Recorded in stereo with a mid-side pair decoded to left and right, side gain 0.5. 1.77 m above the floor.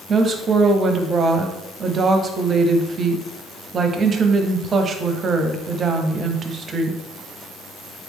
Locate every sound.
0.1 s a woman speaking: 45° right, 0.7 m